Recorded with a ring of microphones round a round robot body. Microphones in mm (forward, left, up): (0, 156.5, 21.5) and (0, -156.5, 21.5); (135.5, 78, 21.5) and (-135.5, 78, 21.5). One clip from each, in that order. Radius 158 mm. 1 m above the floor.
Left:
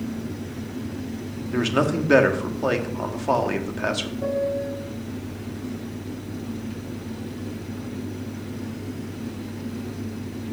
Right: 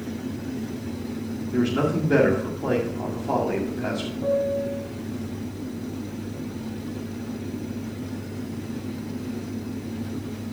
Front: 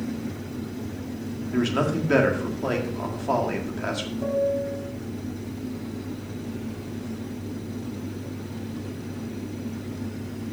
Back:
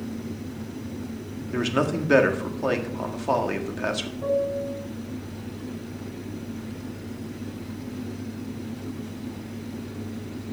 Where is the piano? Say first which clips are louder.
Right 3 dB, front 1 dB; 85° left, 1.8 m.